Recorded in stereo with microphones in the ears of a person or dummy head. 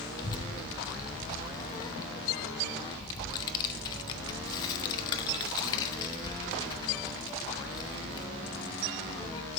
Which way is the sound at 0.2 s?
25° left (ahead or behind).